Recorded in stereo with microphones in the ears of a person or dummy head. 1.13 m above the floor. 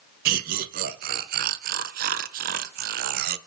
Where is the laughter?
45° right (ahead or behind), 0.5 m.